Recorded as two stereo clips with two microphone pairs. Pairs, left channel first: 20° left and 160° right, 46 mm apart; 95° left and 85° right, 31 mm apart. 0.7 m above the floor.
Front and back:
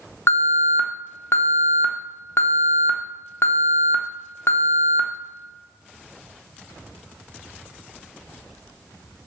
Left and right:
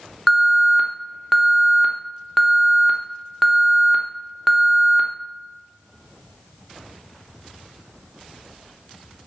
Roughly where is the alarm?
Ahead.